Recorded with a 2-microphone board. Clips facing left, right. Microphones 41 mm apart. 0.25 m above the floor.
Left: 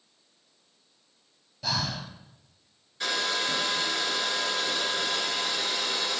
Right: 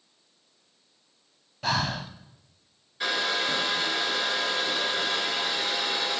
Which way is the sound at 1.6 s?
40° right (ahead or behind).